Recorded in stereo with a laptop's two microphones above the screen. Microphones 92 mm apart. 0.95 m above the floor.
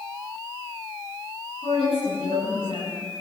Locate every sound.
1.6 s a woman speaking: 85° left, 10 m